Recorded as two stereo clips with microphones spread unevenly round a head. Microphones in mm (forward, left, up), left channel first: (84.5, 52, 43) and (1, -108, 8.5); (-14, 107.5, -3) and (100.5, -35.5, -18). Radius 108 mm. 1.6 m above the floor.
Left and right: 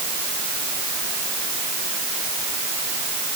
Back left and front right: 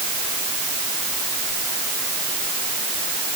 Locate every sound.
Only background noise.